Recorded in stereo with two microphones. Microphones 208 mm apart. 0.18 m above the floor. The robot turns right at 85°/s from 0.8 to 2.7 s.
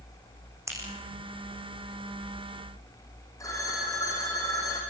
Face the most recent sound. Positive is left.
turn(degrees=15)  # may be behind; listen again after turning